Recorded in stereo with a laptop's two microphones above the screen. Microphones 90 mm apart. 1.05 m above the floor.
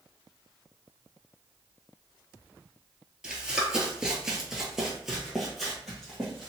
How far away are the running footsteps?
About 1.1 m.